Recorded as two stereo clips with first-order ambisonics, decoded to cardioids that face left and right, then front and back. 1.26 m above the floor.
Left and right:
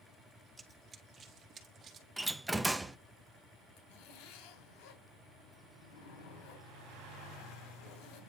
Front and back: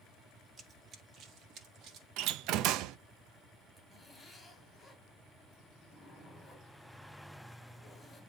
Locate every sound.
0.6 s running footsteps: 155° right, 1.3 m; by 2.1 s 145° right, 2.5 m
2.2 s a door slam: 175° right, 0.6 m
3.8 s a zipper: 80° left, 3.5 m